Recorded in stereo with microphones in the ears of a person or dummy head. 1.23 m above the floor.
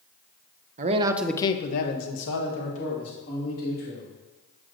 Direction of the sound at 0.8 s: 40° right (ahead or behind).